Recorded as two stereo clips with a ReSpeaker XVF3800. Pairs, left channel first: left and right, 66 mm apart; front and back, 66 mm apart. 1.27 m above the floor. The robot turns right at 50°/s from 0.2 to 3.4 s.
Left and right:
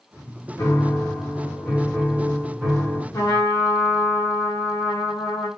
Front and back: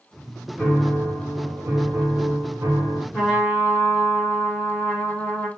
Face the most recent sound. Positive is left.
turn(degrees=90)